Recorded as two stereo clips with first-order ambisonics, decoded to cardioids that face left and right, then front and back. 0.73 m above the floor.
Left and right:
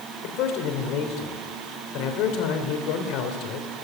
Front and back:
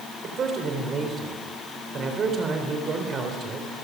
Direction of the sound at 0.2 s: 115° left.